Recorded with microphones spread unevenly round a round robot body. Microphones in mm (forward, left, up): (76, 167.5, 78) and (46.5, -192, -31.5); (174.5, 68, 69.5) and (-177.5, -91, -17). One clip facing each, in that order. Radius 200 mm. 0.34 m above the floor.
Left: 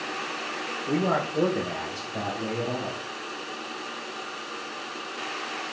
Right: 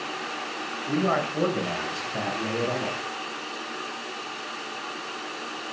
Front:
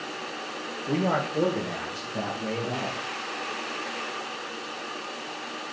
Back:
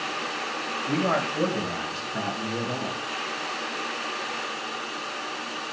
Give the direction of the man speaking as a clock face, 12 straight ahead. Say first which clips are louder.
Even, even; 5 o'clock.